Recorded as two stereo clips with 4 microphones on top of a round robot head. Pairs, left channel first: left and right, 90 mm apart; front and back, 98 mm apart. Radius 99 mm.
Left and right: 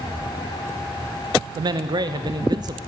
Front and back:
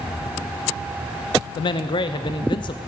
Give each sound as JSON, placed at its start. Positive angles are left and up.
{"t": 1.6, "sound": "a man speaking", "azimuth_deg": -45, "distance_m": 0.8}